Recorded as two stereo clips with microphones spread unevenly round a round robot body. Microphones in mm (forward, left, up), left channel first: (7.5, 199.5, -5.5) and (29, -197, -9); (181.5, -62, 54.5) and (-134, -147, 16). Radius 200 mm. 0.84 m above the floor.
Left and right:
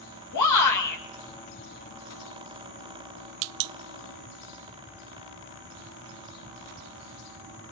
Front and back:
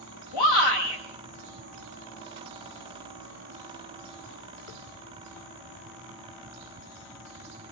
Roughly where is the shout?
Ahead left.